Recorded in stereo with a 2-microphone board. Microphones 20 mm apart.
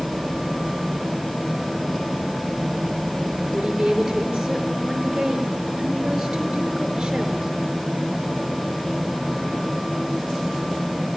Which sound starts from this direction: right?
A woman speaking, at 3.5 s.